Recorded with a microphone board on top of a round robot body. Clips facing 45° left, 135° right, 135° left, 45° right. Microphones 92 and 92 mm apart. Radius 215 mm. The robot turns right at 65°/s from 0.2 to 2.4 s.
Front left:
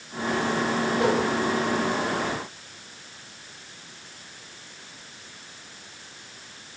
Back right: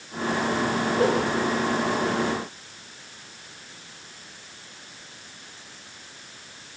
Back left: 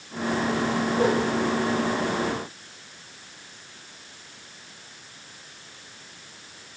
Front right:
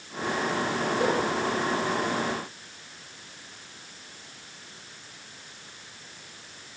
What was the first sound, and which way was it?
A whoosh, 175° right.